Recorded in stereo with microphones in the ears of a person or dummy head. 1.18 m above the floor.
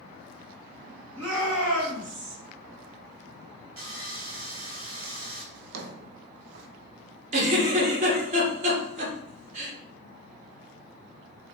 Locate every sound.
1.2 s a shout: 70° right (ahead or behind), 2 m; by 2.4 s 55° right (ahead or behind), 1.6 m
3.8 s sawing: 55° right (ahead or behind), 1.8 m
5.5 s a drawer: 65° right (ahead or behind), 0.5 m
7.3 s a giggle: 40° right (ahead or behind), 1.2 m